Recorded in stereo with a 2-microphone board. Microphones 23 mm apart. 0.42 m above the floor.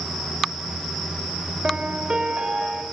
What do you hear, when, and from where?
1.6 s a piano: 45° right (ahead or behind), 2 m